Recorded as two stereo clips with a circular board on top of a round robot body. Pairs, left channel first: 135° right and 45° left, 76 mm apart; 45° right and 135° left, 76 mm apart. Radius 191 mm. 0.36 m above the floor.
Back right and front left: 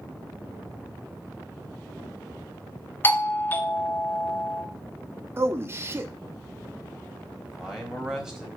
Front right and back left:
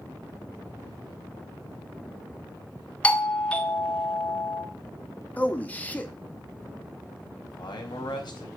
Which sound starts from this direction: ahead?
A man speaking, at 5.4 s.